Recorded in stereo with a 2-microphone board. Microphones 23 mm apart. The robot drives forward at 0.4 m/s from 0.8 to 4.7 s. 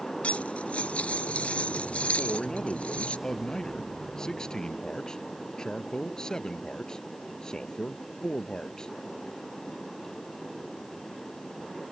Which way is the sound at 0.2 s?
80° left.